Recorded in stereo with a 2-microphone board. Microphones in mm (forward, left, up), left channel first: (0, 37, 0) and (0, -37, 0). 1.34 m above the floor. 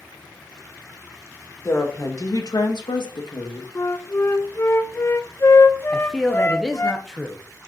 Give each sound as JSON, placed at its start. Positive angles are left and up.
{"t": 1.6, "sound": "a woman speaking", "side_deg": 35, "distance_m": 2.0}
{"t": 3.8, "sound": "a flute", "side_deg": 35, "distance_m": 0.8}
{"t": 5.9, "sound": "a man speaking", "side_deg": 5, "distance_m": 1.0}